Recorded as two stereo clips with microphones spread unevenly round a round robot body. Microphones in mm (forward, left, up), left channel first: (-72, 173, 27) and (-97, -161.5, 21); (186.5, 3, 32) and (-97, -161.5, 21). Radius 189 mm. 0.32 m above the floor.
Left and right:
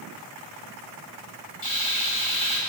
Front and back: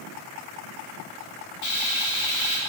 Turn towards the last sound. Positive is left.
turn(degrees=20)